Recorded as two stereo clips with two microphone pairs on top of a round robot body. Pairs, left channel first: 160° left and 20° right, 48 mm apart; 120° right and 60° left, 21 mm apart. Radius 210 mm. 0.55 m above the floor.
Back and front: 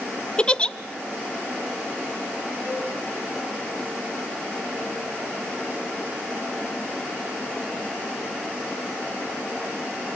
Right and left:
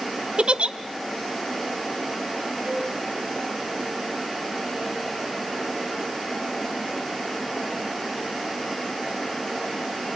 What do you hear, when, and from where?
0.4 s a giggle: 90° left, 0.6 m
2.6 s a cowbell: 20° left, 6 m